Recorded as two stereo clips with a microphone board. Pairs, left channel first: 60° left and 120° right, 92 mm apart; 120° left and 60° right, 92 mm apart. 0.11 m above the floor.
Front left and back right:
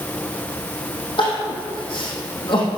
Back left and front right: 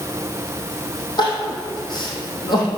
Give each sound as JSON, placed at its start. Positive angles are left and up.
{"t": 1.2, "sound": "crying", "azimuth_deg": 85, "distance_m": 3.0}